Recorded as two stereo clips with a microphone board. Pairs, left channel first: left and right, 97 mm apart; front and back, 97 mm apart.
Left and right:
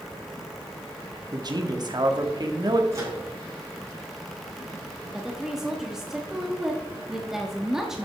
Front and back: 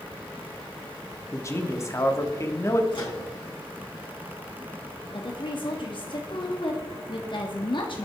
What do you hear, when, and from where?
1.3 s a man speaking: 55° right, 1.4 m
2.9 s a microwave: 35° right, 4.5 m
5.1 s a woman speaking: 5° right, 1.2 m